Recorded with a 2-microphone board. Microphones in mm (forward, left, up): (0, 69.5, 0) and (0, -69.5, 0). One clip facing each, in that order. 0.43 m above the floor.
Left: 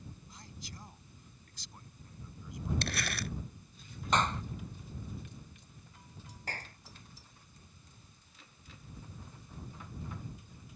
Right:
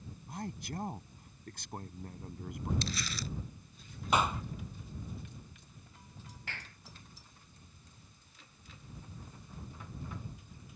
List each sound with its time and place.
0.3 s a man speaking: 60° right (ahead or behind)
2.8 s crumpling: 65° left (ahead or behind)
4.1 s a clap: 10° right (ahead or behind)
6.5 s a clap: 40° left (ahead or behind)